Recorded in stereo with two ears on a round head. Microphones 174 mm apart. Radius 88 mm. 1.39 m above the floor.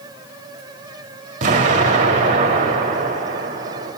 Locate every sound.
1.4 s an explosion: 40° right (ahead or behind), 1.6 m